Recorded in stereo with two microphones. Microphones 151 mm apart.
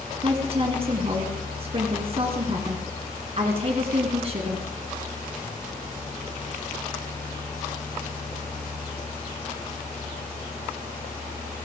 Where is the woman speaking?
40° right (ahead or behind), 2.5 m.